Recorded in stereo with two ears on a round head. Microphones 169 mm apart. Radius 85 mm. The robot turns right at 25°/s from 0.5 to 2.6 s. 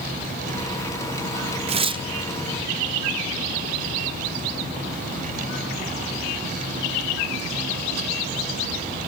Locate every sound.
1.7 s tearing paper: 35° right (ahead or behind), 0.8 m; by 2.0 s 25° right (ahead or behind), 0.8 m